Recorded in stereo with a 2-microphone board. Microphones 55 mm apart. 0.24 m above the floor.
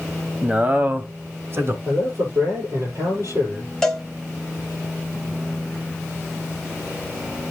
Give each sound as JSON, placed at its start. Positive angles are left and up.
{"t": 0.4, "sound": "a man speaking", "side_deg": -20, "distance_m": 1.1}
{"t": 1.9, "sound": "a man speaking", "side_deg": -60, "distance_m": 6.0}
{"t": 3.8, "sound": "a cowbell", "side_deg": 5, "distance_m": 1.7}